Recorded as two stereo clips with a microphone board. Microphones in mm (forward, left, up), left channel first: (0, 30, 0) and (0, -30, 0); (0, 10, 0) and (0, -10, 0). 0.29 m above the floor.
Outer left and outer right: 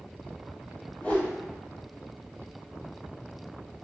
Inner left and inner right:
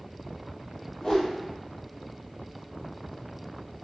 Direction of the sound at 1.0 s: 20° left (ahead or behind).